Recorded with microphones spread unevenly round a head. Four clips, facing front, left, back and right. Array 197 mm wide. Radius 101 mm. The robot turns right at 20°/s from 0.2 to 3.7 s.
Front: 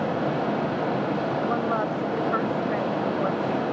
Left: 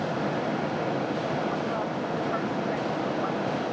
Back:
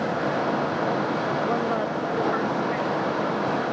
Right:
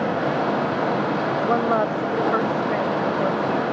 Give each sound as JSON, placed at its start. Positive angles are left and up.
{"t": 1.5, "sound": "a woman speaking", "azimuth_deg": -100}